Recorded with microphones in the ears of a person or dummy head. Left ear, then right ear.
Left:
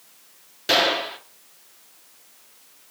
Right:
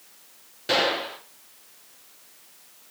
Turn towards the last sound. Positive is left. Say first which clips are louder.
# left 3 dB
turn(degrees=20)  # may be behind; listen again after turning